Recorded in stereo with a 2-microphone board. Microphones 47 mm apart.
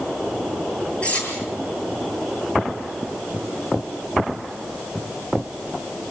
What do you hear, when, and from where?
1.0 s cutlery clinking: 30° left (ahead or behind), 8 m